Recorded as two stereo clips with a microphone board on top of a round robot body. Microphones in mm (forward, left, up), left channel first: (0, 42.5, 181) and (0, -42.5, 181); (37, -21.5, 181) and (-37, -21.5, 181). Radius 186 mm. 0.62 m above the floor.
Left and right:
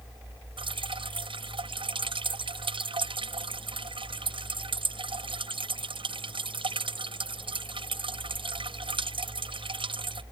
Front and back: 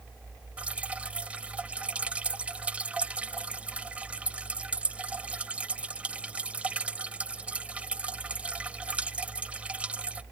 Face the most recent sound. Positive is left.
turn(degrees=-105)